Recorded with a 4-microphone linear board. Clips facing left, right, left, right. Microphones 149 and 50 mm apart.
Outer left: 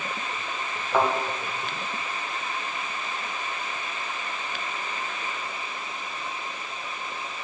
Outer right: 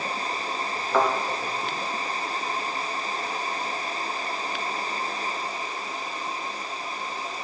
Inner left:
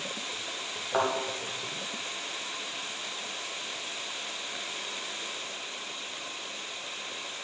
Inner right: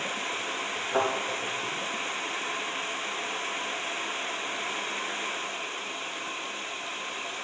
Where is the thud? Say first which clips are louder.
Outer right 1 dB, inner right 1 dB; 10° left (ahead or behind), 1.9 m.